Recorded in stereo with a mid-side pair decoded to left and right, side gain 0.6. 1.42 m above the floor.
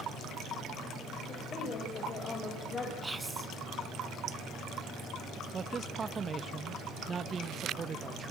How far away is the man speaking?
About 1.7 m.